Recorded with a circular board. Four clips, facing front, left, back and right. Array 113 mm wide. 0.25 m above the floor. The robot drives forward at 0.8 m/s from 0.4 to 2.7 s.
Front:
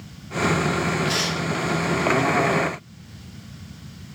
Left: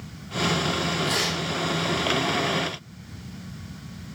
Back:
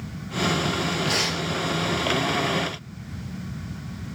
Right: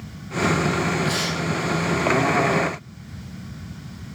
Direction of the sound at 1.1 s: 170° left.